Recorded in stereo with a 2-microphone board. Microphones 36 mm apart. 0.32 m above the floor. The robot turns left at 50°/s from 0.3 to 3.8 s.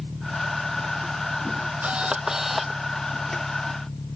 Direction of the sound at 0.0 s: 75° right.